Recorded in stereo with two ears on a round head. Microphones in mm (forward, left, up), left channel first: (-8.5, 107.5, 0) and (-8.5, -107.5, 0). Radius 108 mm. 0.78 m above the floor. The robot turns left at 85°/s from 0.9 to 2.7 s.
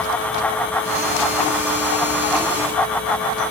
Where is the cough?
No cough in this recording.